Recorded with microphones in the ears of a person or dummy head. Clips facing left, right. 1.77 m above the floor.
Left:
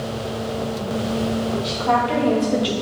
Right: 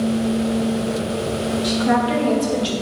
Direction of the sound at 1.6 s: 25° right (ahead or behind).